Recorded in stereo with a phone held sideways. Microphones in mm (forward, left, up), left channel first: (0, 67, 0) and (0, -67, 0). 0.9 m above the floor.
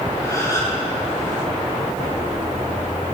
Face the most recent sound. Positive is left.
turn(degrees=25)  # may be behind; listen again after turning